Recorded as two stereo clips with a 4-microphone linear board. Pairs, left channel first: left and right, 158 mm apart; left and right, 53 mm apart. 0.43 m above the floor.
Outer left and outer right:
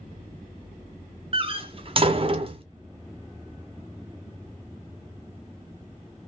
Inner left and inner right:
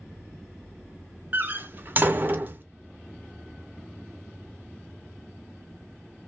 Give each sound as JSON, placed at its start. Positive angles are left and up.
{"t": 1.3, "sound": "a door slam", "side_deg": -35, "distance_m": 0.6}